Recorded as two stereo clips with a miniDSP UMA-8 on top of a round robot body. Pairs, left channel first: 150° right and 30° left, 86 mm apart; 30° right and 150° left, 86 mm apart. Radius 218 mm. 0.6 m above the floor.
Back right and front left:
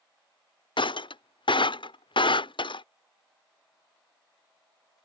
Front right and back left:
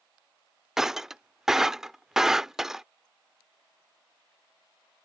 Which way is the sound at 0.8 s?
125° right.